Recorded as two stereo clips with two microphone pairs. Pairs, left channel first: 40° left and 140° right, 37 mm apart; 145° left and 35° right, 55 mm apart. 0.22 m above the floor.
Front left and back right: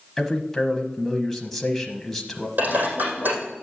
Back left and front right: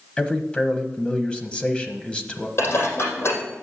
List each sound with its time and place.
0.2 s a man speaking: 110° left, 1.0 m
2.6 s dishes clattering: 175° right, 5 m